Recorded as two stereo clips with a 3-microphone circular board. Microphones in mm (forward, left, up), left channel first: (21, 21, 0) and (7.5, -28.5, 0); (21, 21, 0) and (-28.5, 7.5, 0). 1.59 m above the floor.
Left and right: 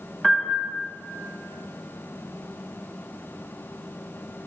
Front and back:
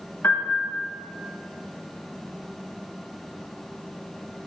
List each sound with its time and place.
0.2 s a piano: 20° right, 1.1 m